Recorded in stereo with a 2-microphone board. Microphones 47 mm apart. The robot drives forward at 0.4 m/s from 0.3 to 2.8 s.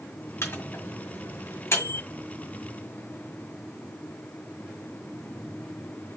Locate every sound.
0.4 s a microwave: 65° left (ahead or behind), 1.9 m; by 2.0 s 75° left (ahead or behind), 1.8 m